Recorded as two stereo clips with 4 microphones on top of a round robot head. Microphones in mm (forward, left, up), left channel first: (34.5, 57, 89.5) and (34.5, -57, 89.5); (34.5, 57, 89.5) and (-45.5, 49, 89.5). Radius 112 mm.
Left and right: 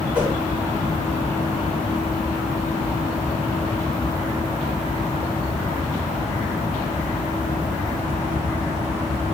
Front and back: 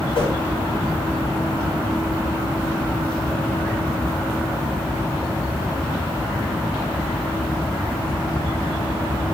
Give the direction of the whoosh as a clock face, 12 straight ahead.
12 o'clock.